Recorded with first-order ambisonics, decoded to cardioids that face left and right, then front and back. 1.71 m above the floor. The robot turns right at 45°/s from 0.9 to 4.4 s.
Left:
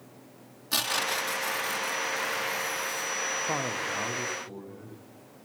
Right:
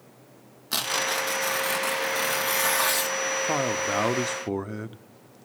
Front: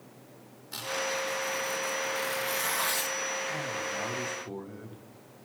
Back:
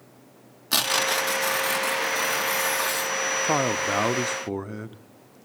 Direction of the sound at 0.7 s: 170° right.